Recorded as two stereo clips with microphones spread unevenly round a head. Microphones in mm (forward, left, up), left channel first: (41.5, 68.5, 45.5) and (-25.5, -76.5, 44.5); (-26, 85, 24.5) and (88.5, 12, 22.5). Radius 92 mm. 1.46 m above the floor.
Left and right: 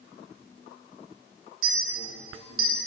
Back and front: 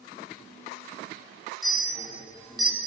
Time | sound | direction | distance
1.6 | a clink | 120° right | 1.3 m